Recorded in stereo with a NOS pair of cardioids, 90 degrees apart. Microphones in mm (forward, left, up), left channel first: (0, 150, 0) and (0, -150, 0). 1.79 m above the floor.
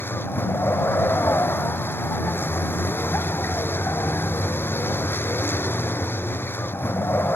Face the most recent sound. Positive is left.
turn(degrees=5)